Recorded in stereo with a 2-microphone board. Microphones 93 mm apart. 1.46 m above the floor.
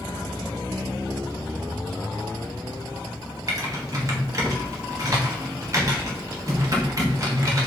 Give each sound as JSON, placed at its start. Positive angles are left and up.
{"t": 3.5, "sound": "typing on a keyboard", "side_deg": -35, "distance_m": 0.9}